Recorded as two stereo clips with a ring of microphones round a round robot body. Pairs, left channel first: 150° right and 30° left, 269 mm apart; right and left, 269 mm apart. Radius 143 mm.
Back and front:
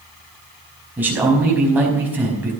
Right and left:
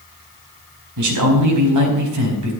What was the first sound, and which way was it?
A man speaking, 115° left.